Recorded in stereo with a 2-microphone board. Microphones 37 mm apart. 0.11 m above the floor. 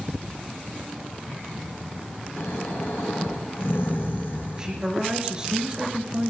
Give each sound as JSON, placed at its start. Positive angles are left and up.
{"t": 2.4, "sound": "snoring", "side_deg": 80, "distance_m": 6.0}
{"t": 4.6, "sound": "a man speaking", "side_deg": -20, "distance_m": 1.9}